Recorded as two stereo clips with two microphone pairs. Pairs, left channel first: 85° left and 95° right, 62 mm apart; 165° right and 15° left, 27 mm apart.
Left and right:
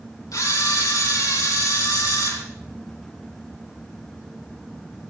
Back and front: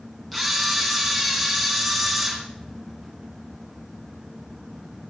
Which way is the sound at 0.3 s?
105° left.